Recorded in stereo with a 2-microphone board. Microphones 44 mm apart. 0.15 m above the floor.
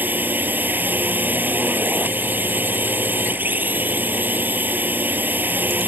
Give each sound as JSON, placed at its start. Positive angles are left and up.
{"t": 0.0, "sound": "a drone", "side_deg": -45}